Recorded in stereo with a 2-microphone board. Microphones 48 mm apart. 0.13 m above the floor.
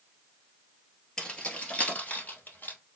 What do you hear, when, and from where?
1.2 s keys jangling: 20° left (ahead or behind), 1.5 m; by 2.8 s 45° left (ahead or behind), 2 m